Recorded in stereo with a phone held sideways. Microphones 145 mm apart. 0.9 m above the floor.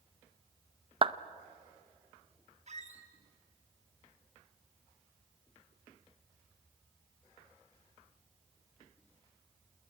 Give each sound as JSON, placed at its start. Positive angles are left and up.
{"t": 1.0, "sound": "a clap", "side_deg": -40, "distance_m": 0.6}
{"t": 2.7, "sound": "a squeak", "side_deg": -50, "distance_m": 2.5}